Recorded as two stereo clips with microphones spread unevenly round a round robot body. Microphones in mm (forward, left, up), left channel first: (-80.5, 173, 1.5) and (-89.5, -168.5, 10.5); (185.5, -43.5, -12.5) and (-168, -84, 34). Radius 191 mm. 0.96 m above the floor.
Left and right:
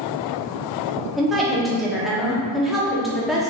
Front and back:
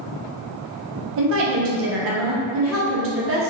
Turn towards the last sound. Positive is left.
turn(degrees=175)